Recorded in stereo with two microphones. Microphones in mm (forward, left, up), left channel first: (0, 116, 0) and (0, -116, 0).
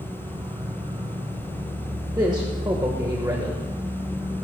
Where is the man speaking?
20° right (ahead or behind), 1.3 m.